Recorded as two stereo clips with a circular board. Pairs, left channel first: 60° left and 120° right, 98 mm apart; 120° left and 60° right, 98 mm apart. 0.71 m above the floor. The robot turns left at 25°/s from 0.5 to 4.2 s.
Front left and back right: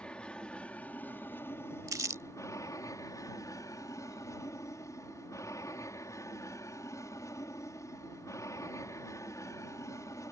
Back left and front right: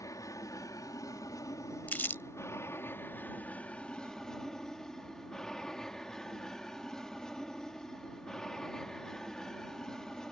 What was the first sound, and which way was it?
An aircraft, 130° left.